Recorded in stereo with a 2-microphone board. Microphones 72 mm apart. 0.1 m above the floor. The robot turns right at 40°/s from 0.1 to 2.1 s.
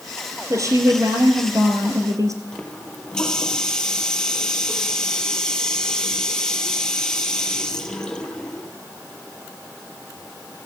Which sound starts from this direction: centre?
A running tap, at 2.5 s.